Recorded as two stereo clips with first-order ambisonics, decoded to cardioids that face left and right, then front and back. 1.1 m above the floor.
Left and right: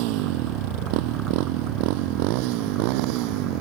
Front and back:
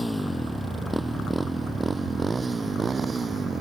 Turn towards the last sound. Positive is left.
turn(degrees=-105)